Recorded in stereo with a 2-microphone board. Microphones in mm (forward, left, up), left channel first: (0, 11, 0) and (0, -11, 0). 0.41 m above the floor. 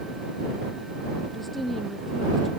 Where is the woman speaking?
5° left (ahead or behind).